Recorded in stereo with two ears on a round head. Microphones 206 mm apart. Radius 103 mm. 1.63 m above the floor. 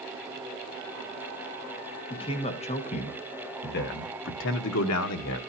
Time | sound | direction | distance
2.1 | a man speaking | 25° left (ahead or behind) | 1.9 m